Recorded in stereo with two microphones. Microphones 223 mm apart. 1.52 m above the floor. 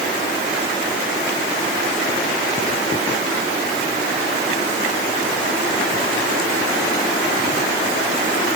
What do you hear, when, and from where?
Only background noise.